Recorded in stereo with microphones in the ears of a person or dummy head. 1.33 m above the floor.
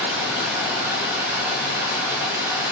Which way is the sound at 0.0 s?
10° right (ahead or behind).